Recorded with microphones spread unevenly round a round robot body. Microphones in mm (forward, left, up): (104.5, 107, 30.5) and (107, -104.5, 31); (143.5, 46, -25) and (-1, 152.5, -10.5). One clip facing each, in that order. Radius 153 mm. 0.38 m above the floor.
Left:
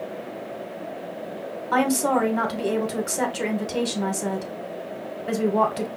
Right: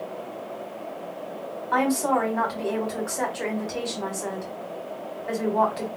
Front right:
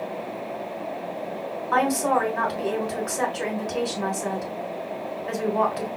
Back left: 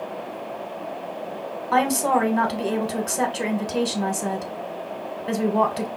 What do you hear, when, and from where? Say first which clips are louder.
1.7 s a woman speaking: left 2 dB, back left 2 dB; 105° left, 1.3 m